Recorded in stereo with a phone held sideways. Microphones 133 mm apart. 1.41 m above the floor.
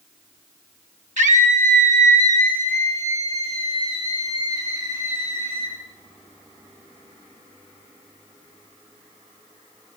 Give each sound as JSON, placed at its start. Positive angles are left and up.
{"t": 1.2, "sound": "a scream", "side_deg": -65, "distance_m": 2.0}